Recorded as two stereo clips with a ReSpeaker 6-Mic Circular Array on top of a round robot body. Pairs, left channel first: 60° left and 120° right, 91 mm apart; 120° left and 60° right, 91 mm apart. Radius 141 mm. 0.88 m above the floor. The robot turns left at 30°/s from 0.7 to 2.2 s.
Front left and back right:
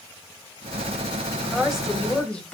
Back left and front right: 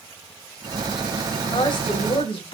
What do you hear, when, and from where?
1.4 s a woman speaking: 160° left, 6 m; by 2.5 s 140° left, 6 m